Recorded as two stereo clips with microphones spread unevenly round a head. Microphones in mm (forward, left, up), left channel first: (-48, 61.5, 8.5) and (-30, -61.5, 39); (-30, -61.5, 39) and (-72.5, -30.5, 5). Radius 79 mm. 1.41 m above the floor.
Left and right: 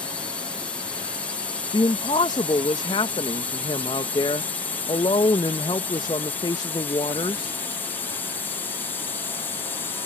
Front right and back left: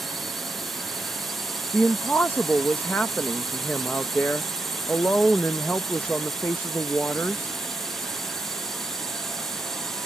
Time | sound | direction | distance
0.0 | a drone | 140° left | ?
1.7 | a woman speaking | 30° left | ?